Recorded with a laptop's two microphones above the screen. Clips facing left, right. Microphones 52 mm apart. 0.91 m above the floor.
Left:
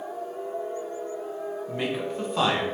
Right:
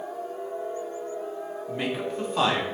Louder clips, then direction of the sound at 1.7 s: Right 1 dB; centre (ahead or behind).